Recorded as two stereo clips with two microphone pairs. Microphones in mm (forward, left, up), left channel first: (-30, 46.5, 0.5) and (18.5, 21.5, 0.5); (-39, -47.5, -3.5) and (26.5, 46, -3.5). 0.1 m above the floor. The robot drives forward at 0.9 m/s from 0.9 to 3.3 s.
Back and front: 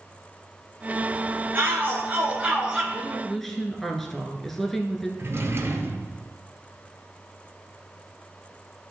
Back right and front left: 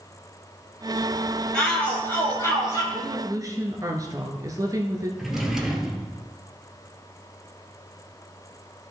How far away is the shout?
About 2 m.